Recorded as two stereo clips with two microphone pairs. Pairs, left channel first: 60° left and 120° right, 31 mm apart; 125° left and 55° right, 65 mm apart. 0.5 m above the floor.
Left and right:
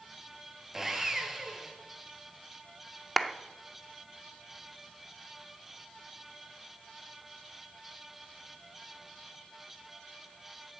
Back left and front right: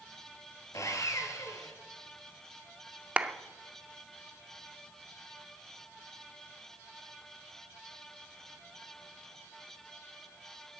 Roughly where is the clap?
Ahead.